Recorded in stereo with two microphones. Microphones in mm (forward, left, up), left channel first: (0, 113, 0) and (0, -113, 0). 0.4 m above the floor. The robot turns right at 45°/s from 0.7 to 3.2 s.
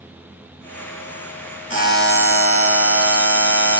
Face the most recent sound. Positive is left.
turn(degrees=100)